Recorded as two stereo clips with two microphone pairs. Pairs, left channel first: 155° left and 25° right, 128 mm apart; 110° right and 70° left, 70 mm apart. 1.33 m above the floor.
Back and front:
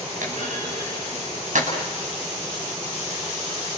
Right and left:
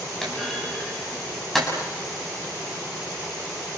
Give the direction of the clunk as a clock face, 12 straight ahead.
1 o'clock.